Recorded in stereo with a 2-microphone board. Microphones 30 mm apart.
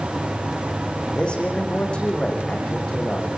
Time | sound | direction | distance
1.1 | a man speaking | 35° left (ahead or behind) | 8 m